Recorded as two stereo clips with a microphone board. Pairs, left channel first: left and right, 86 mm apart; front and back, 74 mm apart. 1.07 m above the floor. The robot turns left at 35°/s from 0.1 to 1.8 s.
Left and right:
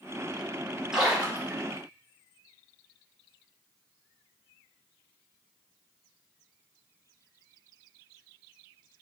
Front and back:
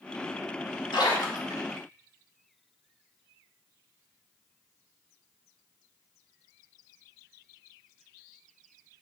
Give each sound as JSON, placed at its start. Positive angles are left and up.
{"t": 0.9, "sound": "a splash", "azimuth_deg": -5, "distance_m": 2.0}